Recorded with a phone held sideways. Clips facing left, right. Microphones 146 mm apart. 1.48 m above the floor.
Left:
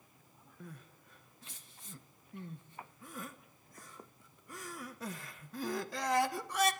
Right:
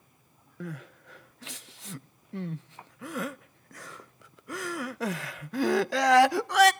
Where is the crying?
75° right (ahead or behind), 0.5 m.